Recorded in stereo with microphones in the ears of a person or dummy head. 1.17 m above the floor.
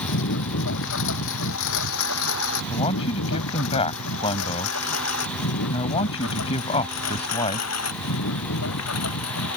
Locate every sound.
0.0 s a lawn mower: 65° left (ahead or behind); by 9.6 s 85° left
2.7 s a man speaking: 30° left (ahead or behind)